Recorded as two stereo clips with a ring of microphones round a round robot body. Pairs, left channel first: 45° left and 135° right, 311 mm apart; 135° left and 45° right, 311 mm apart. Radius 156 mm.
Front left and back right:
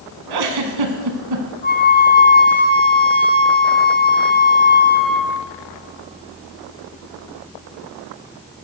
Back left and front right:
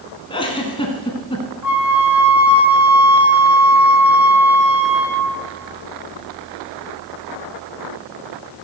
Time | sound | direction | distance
0.3 | a giggle | 150° right | 1.6 m
1.6 | a flute | 105° left | 2.0 m